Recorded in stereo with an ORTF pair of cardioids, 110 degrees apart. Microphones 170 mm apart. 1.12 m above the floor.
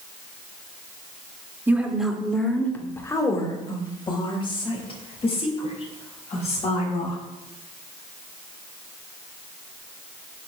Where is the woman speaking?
10° right, 2.5 m; by 7.2 s 40° left, 9 m.